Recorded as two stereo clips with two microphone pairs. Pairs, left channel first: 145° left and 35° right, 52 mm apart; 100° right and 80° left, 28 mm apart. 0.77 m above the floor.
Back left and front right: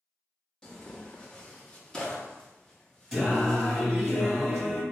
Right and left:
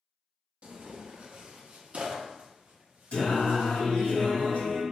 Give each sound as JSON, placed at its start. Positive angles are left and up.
{"t": 0.6, "sound": "tearing paper", "azimuth_deg": 75, "distance_m": 0.5}
{"t": 3.1, "sound": "singing", "azimuth_deg": -110, "distance_m": 1.5}